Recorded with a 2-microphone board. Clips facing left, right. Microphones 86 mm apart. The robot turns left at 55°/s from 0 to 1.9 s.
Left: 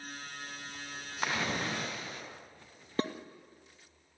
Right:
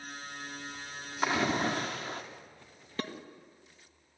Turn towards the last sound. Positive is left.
turn(degrees=30)  # may be behind; listen again after turning